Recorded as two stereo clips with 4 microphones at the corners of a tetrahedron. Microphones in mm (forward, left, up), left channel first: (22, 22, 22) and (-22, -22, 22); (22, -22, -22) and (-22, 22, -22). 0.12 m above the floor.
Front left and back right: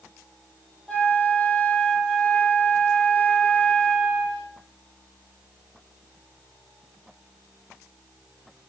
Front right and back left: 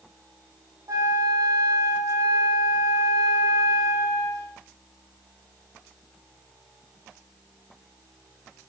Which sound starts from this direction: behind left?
A flute, at 0.9 s.